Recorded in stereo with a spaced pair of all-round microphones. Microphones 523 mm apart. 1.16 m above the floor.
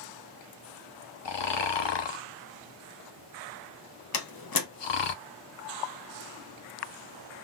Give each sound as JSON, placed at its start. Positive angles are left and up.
{"t": 1.2, "sound": "snoring", "side_deg": 55, "distance_m": 0.6}
{"t": 4.1, "sound": "a door slam", "side_deg": 45, "distance_m": 0.6}